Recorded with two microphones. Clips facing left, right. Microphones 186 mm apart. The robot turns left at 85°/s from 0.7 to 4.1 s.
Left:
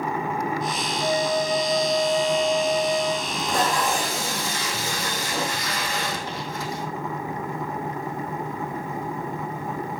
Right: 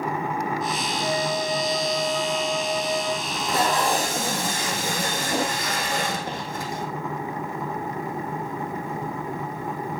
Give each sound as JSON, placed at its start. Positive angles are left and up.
{"t": 1.0, "sound": "a flute", "azimuth_deg": 160, "distance_m": 3.0}
{"t": 3.2, "sound": "tape being pulled", "azimuth_deg": 20, "distance_m": 3.0}